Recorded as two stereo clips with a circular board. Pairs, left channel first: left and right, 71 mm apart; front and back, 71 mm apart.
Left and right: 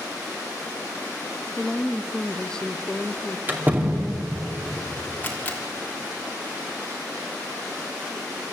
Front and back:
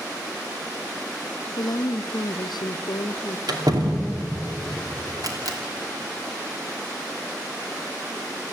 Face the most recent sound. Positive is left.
turn(degrees=155)